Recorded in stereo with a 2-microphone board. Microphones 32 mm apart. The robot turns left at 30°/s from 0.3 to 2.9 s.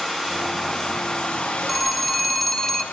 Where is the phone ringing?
5° right (ahead or behind), 0.9 m; by 2.8 s 10° left (ahead or behind), 0.9 m.